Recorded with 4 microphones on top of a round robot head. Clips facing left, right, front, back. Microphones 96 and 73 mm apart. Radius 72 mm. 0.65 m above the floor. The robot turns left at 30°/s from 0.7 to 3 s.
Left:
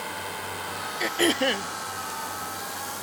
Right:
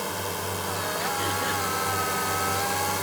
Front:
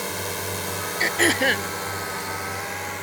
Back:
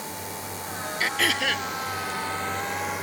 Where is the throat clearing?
65° left; by 1.7 s 45° left.